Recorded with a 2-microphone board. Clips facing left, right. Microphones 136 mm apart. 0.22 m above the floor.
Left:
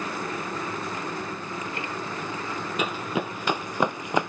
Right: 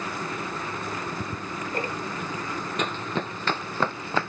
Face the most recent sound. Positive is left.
turn(degrees=15)  # may be behind; listen again after turning